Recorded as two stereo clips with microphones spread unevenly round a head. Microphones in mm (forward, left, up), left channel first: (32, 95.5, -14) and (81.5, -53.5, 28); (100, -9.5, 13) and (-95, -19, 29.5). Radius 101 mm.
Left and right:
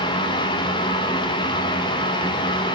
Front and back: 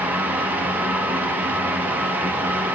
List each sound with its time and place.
0.0 s a fan: 100° left, 1.1 m